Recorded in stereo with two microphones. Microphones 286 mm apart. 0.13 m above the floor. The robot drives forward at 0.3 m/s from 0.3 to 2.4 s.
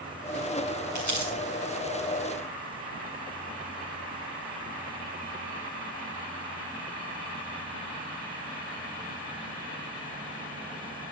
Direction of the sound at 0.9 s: 85° right.